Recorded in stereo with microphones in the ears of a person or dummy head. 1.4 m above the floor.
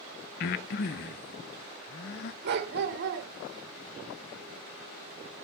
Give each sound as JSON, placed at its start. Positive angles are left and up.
{"t": 0.4, "sound": "breathing", "side_deg": 45, "distance_m": 0.6}
{"t": 2.4, "sound": "a dog barking", "side_deg": -55, "distance_m": 1.8}